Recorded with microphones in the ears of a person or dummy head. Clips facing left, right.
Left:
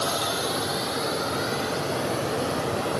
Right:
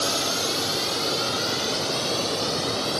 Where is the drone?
30° right (ahead or behind); by 3.0 s 50° right (ahead or behind).